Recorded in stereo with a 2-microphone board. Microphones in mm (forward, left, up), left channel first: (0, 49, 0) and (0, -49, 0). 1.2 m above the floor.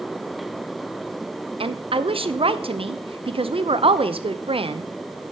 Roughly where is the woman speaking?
Right.